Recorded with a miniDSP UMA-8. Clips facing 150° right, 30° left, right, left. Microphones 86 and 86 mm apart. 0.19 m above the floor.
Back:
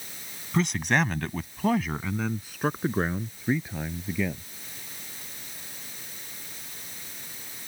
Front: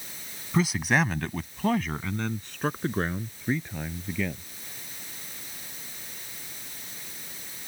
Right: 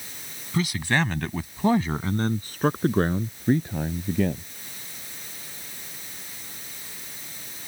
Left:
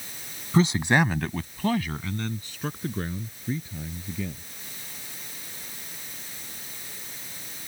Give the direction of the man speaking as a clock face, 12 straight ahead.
8 o'clock.